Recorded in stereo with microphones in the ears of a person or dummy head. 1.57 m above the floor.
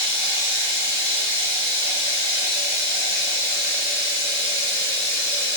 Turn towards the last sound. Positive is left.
turn(degrees=-60)  # may be behind; listen again after turning